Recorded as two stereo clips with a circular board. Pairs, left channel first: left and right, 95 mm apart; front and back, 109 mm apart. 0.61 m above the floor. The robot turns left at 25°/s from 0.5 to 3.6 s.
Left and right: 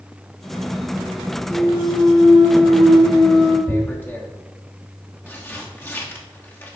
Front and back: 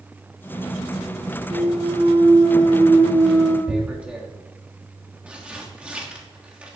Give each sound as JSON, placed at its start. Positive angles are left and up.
{"t": 1.5, "sound": "a clunk", "azimuth_deg": 170, "distance_m": 4.5}
{"t": 3.7, "sound": "tearing paper", "azimuth_deg": 115, "distance_m": 1.3}